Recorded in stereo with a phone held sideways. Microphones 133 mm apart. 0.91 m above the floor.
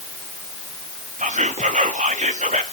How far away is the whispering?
About 1.6 m.